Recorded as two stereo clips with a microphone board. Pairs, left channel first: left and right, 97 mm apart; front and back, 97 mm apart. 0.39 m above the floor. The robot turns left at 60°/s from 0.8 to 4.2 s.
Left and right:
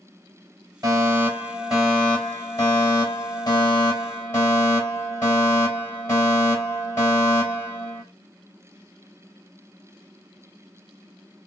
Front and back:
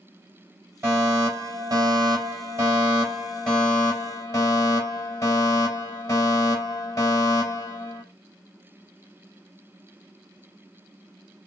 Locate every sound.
0.8 s a fire alarm: 125° right, 3.5 m; by 8.0 s 35° left, 3.5 m